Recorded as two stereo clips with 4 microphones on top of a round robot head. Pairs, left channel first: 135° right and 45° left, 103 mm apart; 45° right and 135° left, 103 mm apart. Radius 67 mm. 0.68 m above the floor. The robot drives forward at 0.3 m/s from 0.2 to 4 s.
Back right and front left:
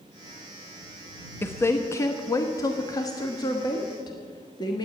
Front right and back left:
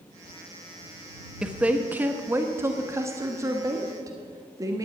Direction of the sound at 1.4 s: 155° right.